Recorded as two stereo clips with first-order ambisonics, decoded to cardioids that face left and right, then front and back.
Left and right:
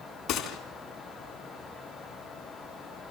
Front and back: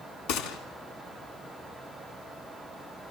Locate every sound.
0.3 s a gunshot: 35° left, 3.5 m